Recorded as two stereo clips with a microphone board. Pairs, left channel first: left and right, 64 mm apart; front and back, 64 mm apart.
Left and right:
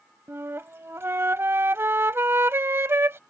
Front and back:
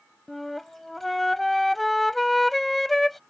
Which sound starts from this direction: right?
A flute, at 0.3 s.